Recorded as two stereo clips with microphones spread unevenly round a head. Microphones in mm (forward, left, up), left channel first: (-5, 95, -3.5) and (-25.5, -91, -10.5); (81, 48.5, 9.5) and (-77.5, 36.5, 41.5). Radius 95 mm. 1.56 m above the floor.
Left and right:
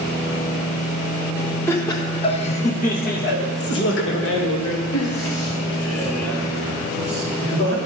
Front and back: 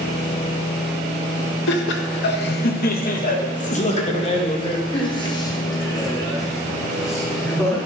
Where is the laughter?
5° left, 1.3 m; by 7.8 s 85° left, 3.5 m.